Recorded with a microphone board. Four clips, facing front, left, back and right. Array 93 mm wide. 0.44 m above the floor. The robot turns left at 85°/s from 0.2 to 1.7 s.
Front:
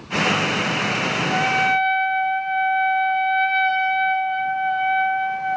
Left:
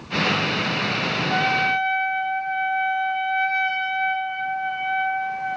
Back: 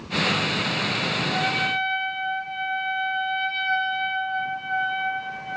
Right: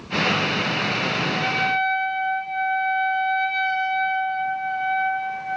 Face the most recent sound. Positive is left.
turn(degrees=25)